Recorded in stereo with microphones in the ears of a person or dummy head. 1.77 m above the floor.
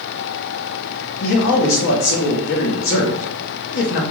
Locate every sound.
1.2 s a man speaking: 65° left (ahead or behind), 0.7 m